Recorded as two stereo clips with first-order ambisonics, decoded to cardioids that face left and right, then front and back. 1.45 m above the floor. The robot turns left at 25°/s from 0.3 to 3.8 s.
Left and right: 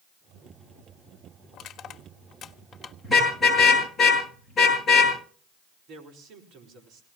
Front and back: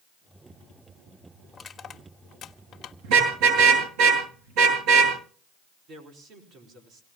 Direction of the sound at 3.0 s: Straight behind.